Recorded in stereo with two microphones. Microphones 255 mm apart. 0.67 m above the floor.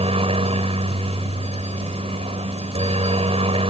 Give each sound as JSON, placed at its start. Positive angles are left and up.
{"t": 0.0, "sound": "a helicopter", "side_deg": -20}